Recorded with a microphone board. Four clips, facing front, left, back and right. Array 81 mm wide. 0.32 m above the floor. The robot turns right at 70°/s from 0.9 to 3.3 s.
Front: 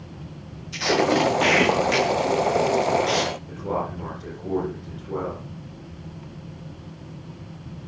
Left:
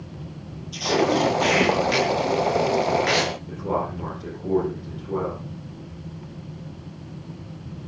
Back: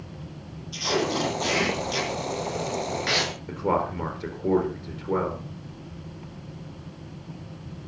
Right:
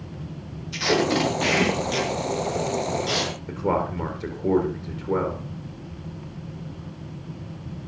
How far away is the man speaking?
About 4.5 m.